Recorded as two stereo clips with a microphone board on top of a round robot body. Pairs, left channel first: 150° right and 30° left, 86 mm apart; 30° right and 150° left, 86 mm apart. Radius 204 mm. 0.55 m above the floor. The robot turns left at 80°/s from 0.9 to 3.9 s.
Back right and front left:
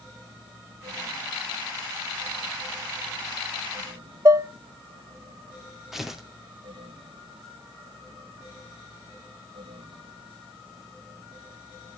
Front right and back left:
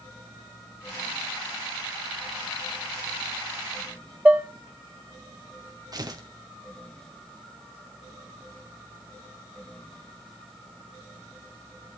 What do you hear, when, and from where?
4.2 s dishes clattering: 75° left, 1.2 m
5.9 s tearing paper: 115° left, 2.5 m